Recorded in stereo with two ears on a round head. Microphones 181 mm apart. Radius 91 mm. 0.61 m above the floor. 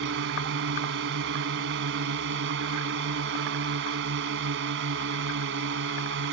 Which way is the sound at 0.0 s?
65° right (ahead or behind).